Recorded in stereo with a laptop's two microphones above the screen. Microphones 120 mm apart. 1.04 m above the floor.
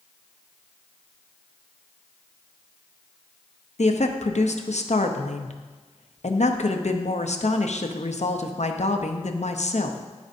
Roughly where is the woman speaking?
Left.